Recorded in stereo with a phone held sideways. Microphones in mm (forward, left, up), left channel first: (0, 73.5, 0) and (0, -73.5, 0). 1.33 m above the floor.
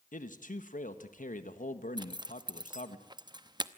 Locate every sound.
0.1 s a man speaking: 70° left (ahead or behind), 1.5 m
2.0 s a zipper: 30° right (ahead or behind), 0.8 m